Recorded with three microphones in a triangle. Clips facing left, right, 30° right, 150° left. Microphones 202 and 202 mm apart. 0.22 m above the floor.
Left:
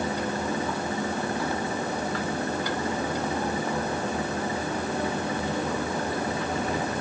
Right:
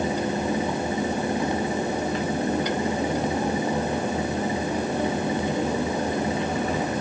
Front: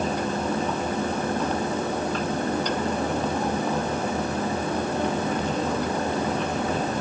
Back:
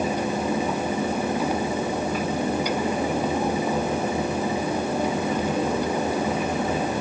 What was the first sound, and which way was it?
Only background noise.